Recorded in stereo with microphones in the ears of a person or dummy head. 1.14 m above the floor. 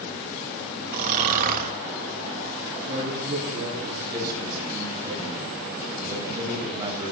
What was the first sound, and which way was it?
Snoring, 45° right (ahead or behind).